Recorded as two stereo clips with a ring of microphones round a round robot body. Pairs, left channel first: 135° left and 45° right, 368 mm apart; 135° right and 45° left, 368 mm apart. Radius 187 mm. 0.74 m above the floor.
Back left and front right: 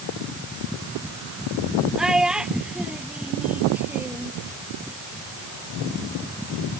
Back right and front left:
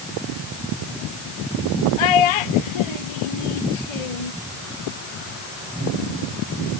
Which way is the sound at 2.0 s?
135° right.